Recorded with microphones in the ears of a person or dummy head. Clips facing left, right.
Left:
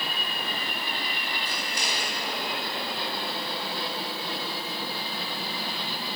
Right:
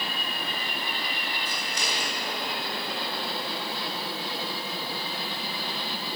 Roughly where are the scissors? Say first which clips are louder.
Even; right.